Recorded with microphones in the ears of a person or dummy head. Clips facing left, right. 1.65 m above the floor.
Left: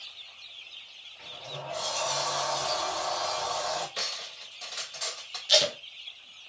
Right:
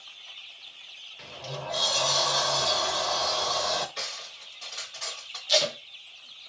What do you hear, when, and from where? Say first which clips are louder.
1.2 s a sliding door: right 3 dB; 50° right (ahead or behind), 0.6 m
4.0 s cutlery clinking: left 1 dB; 35° left (ahead or behind), 1.4 m
5.5 s tape being pulled: even; 5° left (ahead or behind), 0.6 m